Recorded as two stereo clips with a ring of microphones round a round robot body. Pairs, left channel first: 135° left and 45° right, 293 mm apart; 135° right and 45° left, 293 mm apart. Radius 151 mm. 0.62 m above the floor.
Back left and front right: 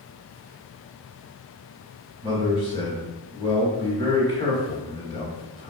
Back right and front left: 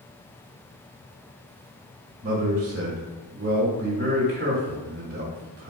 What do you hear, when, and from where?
2.2 s a man speaking: 70° left, 1.1 m